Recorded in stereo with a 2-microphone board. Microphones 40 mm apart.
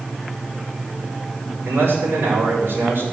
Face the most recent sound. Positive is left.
turn(degrees=-85)